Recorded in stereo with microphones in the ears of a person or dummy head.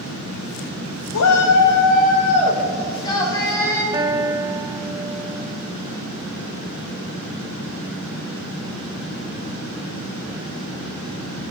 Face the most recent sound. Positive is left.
turn(degrees=-15)  # may be behind; listen again after turning